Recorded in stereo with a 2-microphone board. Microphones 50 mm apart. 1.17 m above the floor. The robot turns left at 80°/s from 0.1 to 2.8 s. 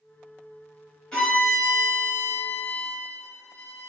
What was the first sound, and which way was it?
A violin, 155° left.